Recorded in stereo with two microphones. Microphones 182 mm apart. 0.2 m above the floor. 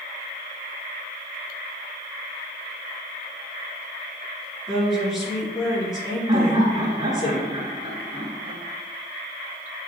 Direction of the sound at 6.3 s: 20° right (ahead or behind).